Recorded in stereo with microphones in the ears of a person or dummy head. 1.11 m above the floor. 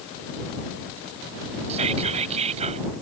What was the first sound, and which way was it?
Whispering, 35° right (ahead or behind).